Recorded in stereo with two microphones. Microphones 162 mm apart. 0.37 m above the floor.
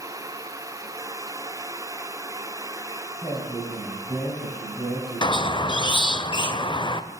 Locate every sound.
3.2 s a man speaking: 5° left (ahead or behind), 3 m
5.2 s a squeak: 30° left (ahead or behind), 0.5 m